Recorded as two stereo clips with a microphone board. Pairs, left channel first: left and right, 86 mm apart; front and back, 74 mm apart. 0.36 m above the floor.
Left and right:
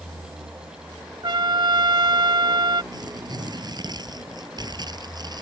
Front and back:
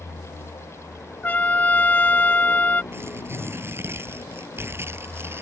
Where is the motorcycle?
25° right.